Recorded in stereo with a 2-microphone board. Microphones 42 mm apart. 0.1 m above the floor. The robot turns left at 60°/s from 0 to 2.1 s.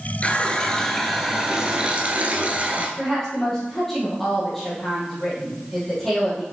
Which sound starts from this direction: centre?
A woman speaking, at 3.0 s.